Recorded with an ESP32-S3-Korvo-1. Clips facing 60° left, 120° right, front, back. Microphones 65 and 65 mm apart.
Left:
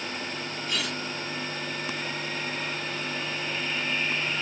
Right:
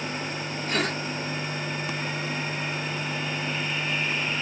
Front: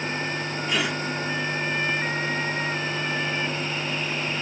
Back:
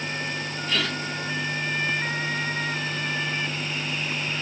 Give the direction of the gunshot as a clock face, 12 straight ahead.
I don't hear a gunshot.